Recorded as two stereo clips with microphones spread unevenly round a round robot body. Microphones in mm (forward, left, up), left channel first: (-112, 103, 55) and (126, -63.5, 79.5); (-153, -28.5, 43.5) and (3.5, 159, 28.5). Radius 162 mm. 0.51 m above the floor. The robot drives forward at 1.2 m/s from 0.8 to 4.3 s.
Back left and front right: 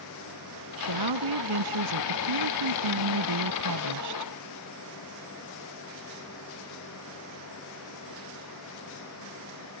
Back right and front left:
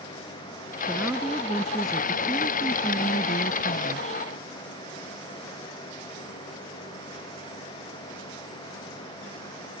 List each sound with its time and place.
0.8 s a woman speaking: 35° right; by 4.3 s 65° right